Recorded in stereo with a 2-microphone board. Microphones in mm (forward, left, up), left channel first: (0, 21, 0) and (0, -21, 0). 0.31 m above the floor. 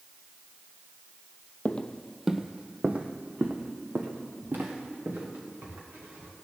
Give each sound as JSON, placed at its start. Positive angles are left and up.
{"t": 1.6, "sound": "footsteps", "side_deg": 35, "distance_m": 0.6}